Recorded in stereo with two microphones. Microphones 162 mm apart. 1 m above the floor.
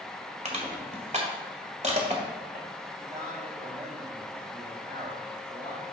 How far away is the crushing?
About 1.7 m.